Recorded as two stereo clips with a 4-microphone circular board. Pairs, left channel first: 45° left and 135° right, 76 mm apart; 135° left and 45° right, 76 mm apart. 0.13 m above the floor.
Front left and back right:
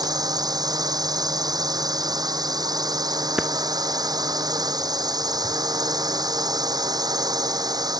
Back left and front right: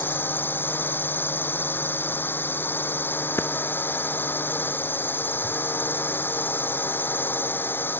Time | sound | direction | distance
0.0 | a drone | 160° right | ?
3.4 | a clap | 155° left | ?